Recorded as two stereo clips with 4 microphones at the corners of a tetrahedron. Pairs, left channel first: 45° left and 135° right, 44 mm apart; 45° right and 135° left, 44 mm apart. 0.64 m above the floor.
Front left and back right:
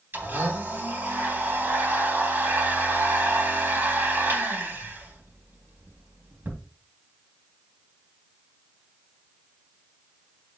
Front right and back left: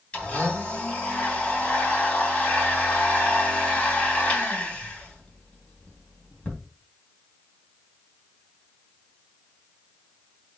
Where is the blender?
105° right, 3 m.